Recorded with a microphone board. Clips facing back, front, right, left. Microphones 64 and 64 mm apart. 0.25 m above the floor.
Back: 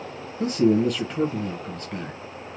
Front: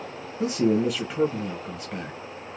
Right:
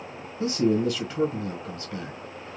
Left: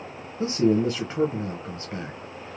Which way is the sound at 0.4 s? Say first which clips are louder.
Back 2 dB, left 2 dB; 80° left.